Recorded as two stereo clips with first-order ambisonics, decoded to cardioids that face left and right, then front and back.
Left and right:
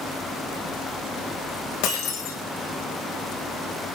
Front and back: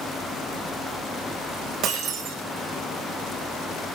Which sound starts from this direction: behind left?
Breaking glass, at 1.8 s.